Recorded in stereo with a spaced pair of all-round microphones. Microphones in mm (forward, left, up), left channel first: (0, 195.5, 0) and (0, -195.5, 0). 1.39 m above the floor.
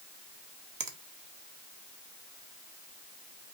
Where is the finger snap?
60° right (ahead or behind), 0.9 m.